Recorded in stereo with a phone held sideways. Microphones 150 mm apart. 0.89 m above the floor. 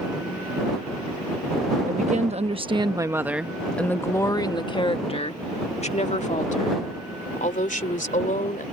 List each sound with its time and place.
1.9 s a woman speaking: 55° right (ahead or behind); by 8.6 s 60° left (ahead or behind)